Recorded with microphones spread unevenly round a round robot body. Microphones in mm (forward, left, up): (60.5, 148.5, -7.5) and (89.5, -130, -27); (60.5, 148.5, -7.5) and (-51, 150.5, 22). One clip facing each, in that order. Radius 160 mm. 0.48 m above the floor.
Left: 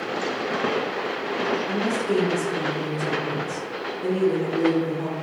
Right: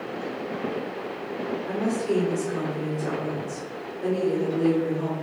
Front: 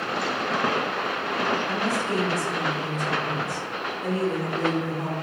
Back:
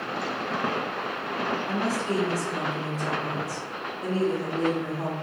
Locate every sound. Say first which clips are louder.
1.7 s a woman speaking: left 1 dB, front 1 dB; 155° right, 1.3 m